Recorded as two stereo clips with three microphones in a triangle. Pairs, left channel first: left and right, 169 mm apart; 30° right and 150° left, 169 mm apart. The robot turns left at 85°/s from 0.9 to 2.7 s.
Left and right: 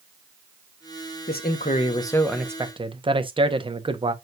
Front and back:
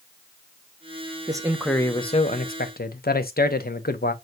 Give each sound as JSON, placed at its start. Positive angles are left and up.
{"t": 1.3, "sound": "a man speaking", "azimuth_deg": 90, "distance_m": 0.8}